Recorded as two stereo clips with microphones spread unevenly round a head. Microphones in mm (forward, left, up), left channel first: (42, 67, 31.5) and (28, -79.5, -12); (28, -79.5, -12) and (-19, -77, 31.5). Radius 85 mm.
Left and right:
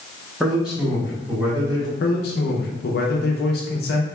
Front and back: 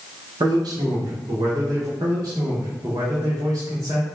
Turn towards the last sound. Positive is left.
turn(degrees=105)